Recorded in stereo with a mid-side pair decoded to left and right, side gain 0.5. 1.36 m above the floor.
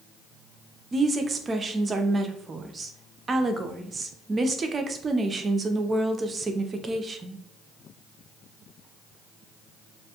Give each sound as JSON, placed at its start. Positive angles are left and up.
{"t": 0.9, "sound": "a woman speaking", "azimuth_deg": -30, "distance_m": 0.6}